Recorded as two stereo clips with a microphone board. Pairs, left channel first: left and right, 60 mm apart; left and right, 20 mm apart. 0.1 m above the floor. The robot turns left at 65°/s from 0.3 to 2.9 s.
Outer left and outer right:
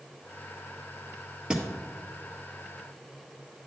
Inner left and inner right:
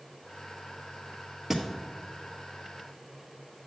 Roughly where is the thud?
Centre.